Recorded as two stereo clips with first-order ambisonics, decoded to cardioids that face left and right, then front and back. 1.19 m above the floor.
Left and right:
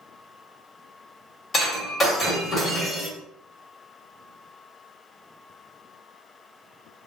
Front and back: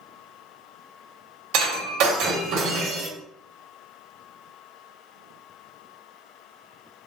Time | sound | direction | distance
1.5 | breaking glass | 160° left | 0.9 m